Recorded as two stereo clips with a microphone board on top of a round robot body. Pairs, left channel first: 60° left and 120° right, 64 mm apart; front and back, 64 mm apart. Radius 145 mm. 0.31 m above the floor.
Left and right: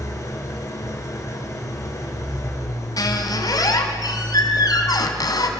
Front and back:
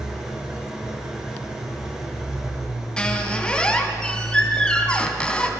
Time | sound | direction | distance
0.0 | an engine running | 105° left | 4.5 m
3.0 | a squeak | 80° left | 3 m